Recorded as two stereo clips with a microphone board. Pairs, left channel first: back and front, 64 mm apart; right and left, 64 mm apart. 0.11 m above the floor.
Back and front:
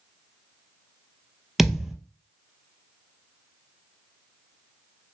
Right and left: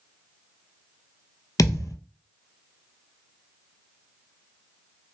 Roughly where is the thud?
Right.